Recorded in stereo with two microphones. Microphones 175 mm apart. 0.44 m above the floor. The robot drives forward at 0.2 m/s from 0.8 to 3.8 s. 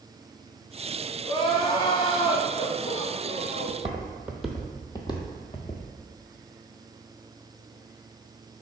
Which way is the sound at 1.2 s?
30° left (ahead or behind).